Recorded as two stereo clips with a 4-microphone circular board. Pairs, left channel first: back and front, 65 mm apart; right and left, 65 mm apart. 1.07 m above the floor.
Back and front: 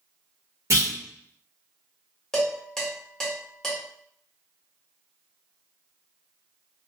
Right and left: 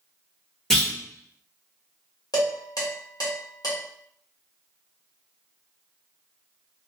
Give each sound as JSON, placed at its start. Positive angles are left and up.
{"t": 0.7, "sound": "a clunk", "azimuth_deg": -10, "distance_m": 1.1}
{"t": 2.3, "sound": "dishes clattering", "azimuth_deg": -100, "distance_m": 1.5}